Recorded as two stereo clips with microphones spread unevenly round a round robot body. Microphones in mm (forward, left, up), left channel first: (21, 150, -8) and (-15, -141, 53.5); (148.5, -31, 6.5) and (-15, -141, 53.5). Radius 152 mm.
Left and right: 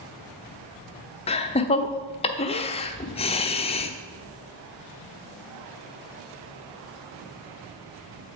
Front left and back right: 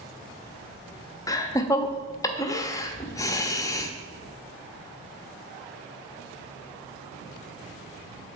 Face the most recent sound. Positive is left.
turn(degrees=60)